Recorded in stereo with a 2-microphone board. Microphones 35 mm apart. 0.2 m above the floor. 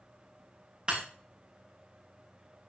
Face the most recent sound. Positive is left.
turn(degrees=-30)  # may be behind; listen again after turning